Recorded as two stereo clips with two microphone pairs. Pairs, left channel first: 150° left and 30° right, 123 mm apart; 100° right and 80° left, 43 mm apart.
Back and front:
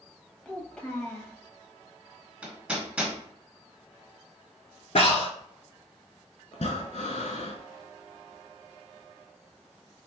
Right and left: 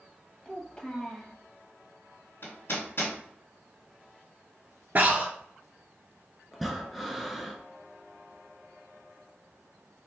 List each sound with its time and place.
0.5 s a child speaking: 135° right, 0.8 m
2.4 s hammering: 110° right, 1.2 m
5.0 s breathing: 125° left, 0.6 m
6.5 s breathing: 170° left, 0.5 m